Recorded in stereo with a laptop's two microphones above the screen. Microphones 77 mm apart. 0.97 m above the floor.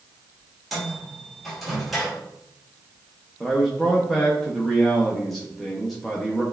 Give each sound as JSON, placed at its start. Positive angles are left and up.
{"t": 0.7, "sound": "a microwave", "side_deg": 0, "distance_m": 1.4}
{"t": 3.4, "sound": "a man speaking", "side_deg": 0, "distance_m": 0.7}